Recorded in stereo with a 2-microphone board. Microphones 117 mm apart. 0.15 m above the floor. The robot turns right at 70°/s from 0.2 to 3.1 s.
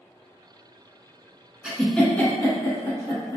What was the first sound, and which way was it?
A giggle, 10° right (ahead or behind).